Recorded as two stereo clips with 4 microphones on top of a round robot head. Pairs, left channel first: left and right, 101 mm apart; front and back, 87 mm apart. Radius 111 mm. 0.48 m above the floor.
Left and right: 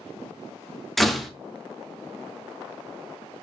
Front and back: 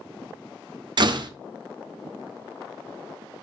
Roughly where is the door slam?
Behind.